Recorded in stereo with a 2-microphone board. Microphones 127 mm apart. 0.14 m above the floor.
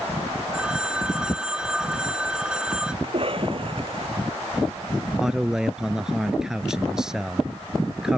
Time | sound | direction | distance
0.5 | a phone ringing | 5° right (ahead or behind) | ?
3.0 | a cough | 50° right (ahead or behind) | ?
5.2 | a man speaking | 5° right (ahead or behind) | ?